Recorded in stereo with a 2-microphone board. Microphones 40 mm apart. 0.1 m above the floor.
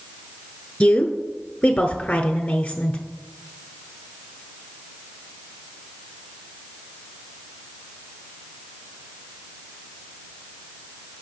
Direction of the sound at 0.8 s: 20° left (ahead or behind).